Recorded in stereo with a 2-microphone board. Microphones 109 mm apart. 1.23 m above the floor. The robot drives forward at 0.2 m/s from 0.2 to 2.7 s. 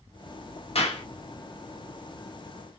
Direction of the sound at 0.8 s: 65° left (ahead or behind).